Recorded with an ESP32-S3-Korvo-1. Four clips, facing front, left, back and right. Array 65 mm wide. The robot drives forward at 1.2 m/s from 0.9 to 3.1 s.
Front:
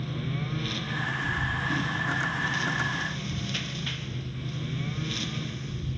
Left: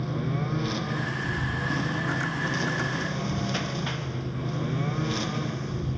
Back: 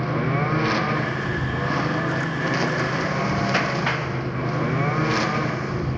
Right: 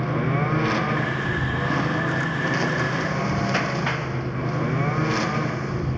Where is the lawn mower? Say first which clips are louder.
Right 6 dB, back 11 dB; 140° right; by 6.0 s 145° right.